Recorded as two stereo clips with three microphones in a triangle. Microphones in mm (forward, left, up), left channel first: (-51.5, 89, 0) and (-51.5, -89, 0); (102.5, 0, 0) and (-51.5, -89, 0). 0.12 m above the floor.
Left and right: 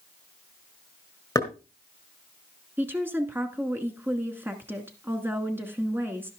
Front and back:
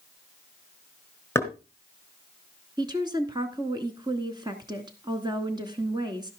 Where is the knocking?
75° left, 1.4 m.